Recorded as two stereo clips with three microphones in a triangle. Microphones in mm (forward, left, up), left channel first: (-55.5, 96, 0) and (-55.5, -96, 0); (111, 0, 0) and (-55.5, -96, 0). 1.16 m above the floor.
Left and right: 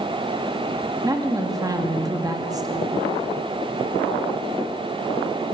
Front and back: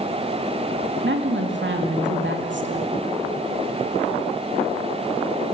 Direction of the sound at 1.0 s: 160° right.